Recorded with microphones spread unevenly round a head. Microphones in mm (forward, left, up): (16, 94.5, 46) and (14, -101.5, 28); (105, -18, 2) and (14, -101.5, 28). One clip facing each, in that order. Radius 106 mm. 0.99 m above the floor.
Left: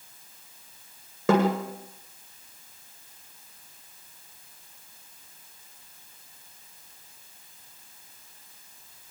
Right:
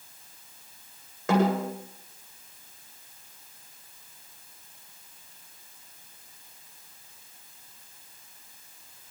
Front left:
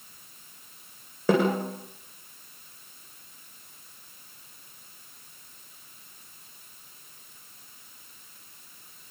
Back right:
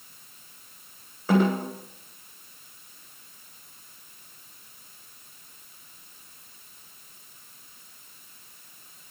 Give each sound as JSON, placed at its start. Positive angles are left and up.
{"t": 1.3, "sound": "a snare drum", "azimuth_deg": 75, "distance_m": 9.0}